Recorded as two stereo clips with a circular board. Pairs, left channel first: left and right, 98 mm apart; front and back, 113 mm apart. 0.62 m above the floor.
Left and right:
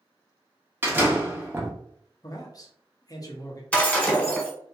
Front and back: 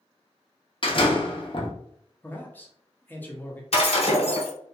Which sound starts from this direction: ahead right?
A door slam, at 0.8 s.